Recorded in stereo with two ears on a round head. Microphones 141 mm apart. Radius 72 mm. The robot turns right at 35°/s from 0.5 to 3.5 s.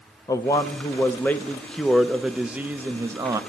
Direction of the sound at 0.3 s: 20° left (ahead or behind).